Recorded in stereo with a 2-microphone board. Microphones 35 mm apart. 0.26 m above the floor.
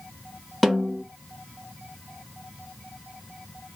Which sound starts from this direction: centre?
A snare drum, at 0.6 s.